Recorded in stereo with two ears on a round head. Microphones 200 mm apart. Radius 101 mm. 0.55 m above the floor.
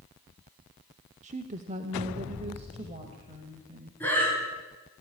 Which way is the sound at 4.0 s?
10° left (ahead or behind).